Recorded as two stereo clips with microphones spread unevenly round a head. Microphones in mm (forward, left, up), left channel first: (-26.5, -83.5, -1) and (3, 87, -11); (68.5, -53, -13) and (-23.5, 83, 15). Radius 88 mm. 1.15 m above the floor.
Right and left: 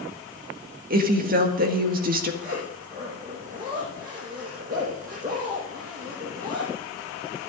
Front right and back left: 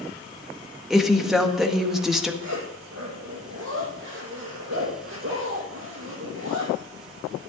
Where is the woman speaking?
35° left, 1.6 m.